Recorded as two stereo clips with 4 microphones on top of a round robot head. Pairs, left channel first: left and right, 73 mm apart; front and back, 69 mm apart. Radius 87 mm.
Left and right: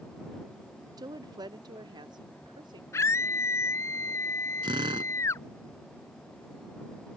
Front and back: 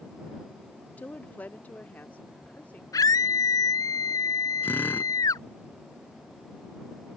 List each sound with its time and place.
1.0 s a woman speaking: 70° right
2.9 s a scream: 30° left
4.6 s a drill: 70° right